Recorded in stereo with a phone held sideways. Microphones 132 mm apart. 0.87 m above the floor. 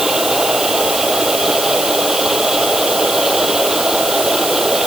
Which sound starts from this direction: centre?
A machine running, at 0.0 s.